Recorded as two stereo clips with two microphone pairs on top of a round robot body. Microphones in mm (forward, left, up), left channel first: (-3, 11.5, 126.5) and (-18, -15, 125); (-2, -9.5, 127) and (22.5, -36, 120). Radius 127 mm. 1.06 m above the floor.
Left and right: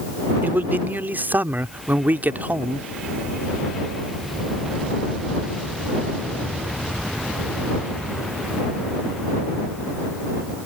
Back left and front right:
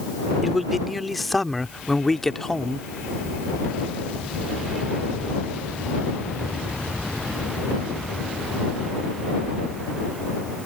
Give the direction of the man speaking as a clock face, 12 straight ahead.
4 o'clock.